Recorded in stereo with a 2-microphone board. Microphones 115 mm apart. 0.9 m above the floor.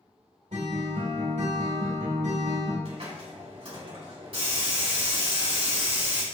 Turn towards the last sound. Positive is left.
turn(degrees=-60)  # may be behind; listen again after turning